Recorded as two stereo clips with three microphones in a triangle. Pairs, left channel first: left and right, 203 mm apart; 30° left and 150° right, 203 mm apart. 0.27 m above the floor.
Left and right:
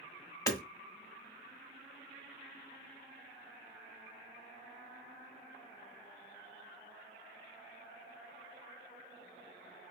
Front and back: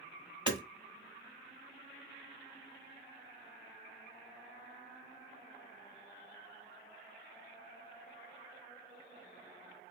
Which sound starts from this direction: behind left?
Hammering, at 0.5 s.